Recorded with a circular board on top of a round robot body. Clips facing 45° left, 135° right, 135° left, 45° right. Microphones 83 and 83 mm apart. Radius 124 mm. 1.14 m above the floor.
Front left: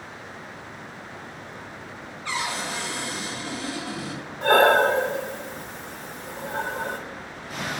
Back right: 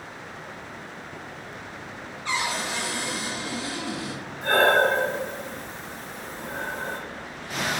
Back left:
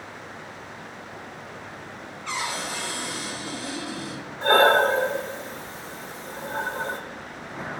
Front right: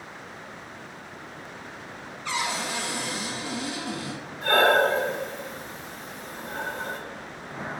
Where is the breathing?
75° left, 0.5 m.